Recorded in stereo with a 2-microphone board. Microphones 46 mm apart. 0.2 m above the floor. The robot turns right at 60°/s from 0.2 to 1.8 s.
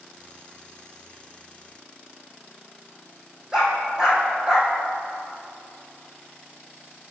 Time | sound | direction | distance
3.5 | a dog barking | 15° right (ahead or behind) | 3.5 m